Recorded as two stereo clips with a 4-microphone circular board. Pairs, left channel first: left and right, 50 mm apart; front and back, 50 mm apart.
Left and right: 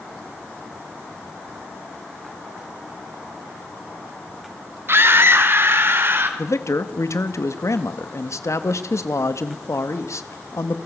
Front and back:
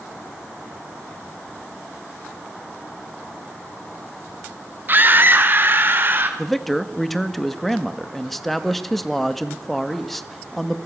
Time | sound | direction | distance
4.9 | a scream | 130° right | 2.5 m
6.4 | a man speaking | 85° left | 1.9 m